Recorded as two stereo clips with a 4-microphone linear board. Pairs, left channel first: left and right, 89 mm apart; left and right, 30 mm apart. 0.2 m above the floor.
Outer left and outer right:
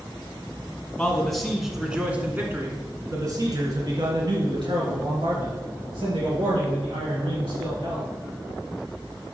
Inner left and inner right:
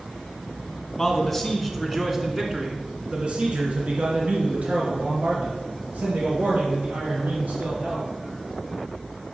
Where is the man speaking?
10° left (ahead or behind), 2 m; by 8.1 s 80° right, 5 m.